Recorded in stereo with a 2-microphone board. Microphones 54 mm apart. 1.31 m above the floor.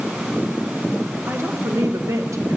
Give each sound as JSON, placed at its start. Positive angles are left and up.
{"t": 1.3, "sound": "a woman speaking", "side_deg": -50, "distance_m": 1.7}